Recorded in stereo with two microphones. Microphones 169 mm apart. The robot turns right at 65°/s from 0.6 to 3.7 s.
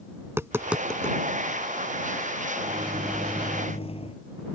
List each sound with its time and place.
0.2 s tapping: 15° right (ahead or behind); by 1.2 s 25° left (ahead or behind)
2.6 s a microwave: 35° right; by 4.2 s 35° left